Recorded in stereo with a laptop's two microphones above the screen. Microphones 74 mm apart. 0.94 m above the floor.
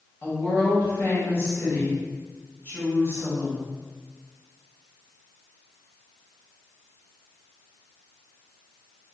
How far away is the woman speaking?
About 1.2 m.